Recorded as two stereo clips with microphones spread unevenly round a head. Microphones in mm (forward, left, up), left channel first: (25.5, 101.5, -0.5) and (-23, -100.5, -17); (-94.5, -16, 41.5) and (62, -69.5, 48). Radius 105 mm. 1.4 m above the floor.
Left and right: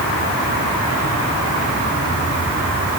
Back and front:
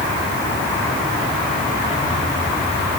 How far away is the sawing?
No sawing in this recording.